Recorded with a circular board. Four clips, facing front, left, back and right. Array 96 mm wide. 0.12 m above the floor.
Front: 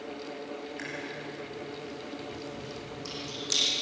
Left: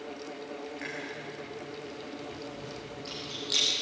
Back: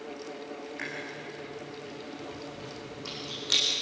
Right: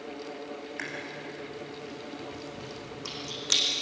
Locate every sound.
0.8 s chewing: 95° right, 8.5 m